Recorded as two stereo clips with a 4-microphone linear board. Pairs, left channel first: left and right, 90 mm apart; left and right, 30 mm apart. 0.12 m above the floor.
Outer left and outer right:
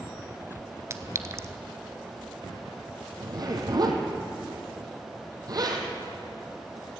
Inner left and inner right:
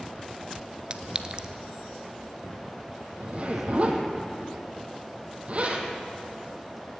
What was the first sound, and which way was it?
A clink, 30° right (ahead or behind).